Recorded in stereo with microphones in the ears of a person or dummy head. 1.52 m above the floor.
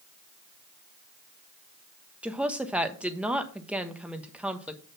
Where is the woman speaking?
10° right (ahead or behind), 1.1 m.